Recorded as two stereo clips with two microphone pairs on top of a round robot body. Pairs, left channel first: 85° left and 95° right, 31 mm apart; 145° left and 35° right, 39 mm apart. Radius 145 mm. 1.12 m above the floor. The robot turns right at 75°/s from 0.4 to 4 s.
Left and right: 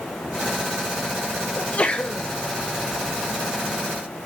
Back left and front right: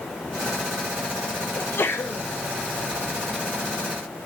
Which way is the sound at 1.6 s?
110° left.